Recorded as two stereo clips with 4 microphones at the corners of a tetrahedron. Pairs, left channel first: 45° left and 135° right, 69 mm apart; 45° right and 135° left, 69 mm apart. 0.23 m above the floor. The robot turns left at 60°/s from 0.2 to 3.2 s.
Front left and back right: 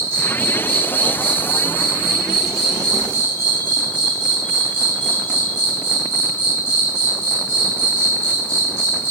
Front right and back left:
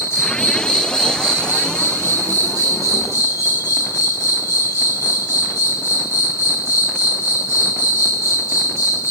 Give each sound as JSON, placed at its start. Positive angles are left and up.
{"t": 0.0, "sound": "an insect", "azimuth_deg": -85, "distance_m": 1.3}